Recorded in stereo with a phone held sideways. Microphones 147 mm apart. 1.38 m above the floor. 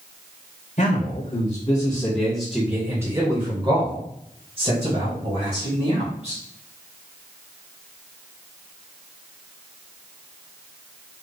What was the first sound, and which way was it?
A man speaking, 55° left (ahead or behind).